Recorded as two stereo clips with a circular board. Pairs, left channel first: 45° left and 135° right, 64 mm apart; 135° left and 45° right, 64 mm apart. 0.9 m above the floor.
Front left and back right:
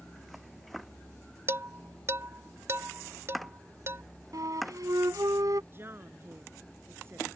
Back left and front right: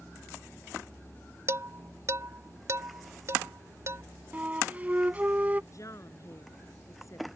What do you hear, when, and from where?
1.5 s dishes clattering: 90° right
4.3 s a flute: 110° right
5.7 s a woman speaking: 170° left